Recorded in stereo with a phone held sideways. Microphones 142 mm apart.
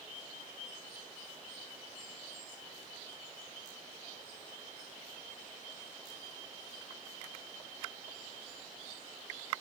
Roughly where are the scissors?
No scissors in this recording.